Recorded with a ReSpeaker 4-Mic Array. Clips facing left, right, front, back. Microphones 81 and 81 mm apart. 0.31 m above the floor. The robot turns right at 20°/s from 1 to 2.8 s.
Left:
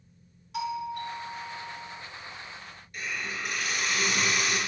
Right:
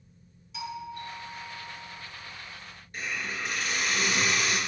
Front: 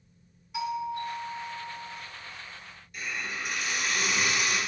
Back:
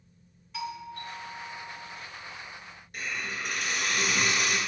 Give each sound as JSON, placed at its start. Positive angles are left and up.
{"t": 0.5, "sound": "a doorbell", "azimuth_deg": 75, "distance_m": 2.5}
{"t": 2.9, "sound": "a hiss", "azimuth_deg": -145, "distance_m": 3.5}